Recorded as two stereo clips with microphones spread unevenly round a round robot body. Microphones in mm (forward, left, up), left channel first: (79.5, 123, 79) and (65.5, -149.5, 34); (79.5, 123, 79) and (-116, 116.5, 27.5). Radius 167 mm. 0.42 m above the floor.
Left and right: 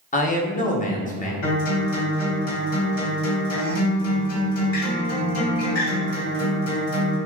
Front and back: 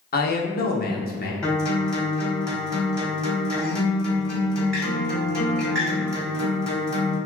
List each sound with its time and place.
0.1 s a man speaking: 30° left, 1.0 m
1.4 s a guitar: 100° left, 1.9 m